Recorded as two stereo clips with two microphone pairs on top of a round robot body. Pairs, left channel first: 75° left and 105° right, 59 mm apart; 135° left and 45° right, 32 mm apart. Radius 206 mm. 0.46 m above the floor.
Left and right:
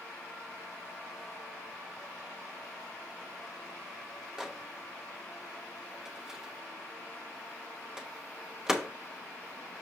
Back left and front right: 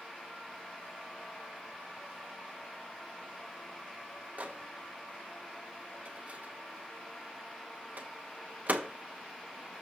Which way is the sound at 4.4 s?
30° right.